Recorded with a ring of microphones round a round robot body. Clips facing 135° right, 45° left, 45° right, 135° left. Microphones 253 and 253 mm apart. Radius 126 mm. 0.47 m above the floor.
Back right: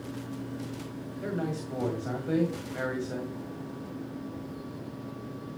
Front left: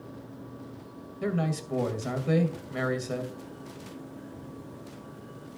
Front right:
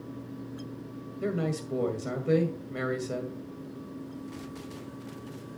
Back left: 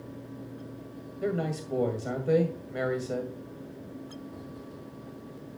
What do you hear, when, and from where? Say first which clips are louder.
1.2 s a man speaking: front left 3 dB, even; 30° left, 2 m